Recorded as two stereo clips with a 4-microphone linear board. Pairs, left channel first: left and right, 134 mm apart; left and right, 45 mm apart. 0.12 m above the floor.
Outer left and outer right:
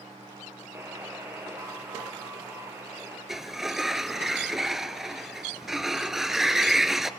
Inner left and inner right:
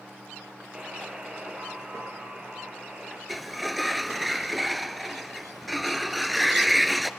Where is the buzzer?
20° right (ahead or behind), 2 m.